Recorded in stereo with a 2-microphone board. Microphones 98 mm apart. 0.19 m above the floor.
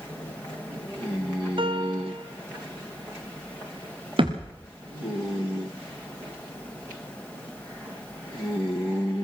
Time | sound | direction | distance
1.6 | a piano | 60° right (ahead or behind) | 2.5 m
4.2 | a thud | 65° right (ahead or behind) | 4.5 m